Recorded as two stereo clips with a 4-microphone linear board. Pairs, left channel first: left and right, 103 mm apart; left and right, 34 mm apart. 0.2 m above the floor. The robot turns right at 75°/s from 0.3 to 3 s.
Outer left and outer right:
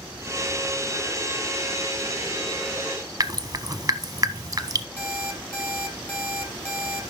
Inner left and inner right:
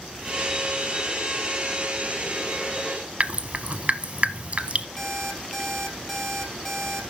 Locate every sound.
3.2 s dripping: 35° right (ahead or behind), 0.8 m
5.0 s an alarm clock: 20° left (ahead or behind), 3 m